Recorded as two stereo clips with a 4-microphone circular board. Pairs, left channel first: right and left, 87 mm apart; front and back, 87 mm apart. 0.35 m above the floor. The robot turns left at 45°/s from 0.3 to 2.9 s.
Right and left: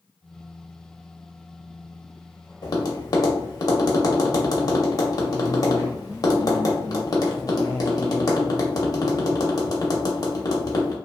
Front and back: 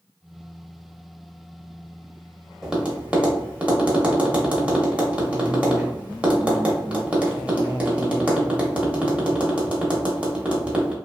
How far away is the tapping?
About 0.7 m.